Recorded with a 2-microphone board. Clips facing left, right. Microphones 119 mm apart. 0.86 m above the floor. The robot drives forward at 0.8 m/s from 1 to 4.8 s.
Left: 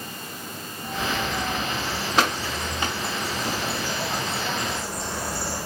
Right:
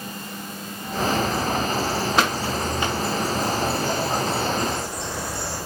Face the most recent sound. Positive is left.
turn(degrees=0)  # may be behind; listen again after turning